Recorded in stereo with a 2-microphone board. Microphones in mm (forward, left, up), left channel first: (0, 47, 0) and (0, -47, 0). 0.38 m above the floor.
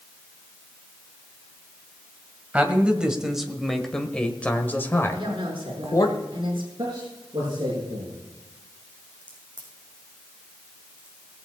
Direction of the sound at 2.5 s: 15° right (ahead or behind).